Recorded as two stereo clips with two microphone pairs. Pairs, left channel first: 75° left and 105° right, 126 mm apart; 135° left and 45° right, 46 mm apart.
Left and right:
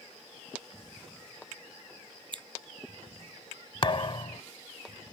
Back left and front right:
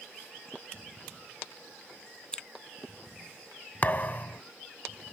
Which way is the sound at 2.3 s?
155° right.